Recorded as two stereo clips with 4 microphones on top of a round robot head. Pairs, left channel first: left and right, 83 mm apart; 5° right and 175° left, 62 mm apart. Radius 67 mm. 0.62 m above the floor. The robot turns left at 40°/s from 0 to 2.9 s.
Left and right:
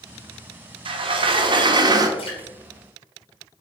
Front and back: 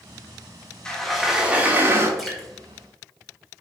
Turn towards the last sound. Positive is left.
turn(degrees=60)